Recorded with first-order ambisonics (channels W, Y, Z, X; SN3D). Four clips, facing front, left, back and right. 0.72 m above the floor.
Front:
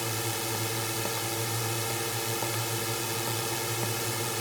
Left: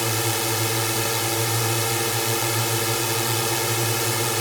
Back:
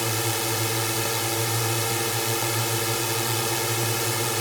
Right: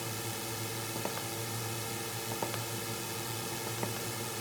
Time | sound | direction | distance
0.0 | a drone | 115° left | ?